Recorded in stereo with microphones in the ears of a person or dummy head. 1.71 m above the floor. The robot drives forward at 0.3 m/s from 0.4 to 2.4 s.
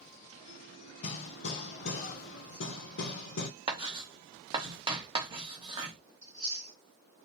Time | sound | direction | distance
1.0 | hammering | 55° left (ahead or behind) | 1.3 m
3.7 | writing | 25° right (ahead or behind) | 0.9 m
6.2 | chewing | 25° right (ahead or behind) | 2.5 m